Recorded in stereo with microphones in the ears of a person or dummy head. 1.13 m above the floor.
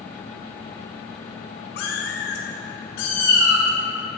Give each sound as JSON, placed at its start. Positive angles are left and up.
{"t": 1.8, "sound": "a cat meowing", "side_deg": 65, "distance_m": 1.8}